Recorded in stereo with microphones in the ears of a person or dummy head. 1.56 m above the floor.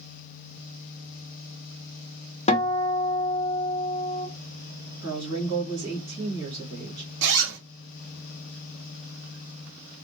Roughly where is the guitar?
Left.